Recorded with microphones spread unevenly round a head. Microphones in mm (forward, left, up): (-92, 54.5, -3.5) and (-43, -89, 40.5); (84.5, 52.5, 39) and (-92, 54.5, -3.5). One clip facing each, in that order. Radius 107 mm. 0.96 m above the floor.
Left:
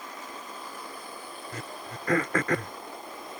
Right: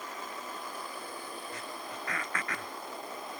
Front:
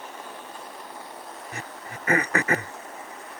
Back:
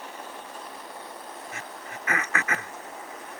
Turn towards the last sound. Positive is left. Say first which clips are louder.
# left 2 dB, front 1 dB
turn(degrees=55)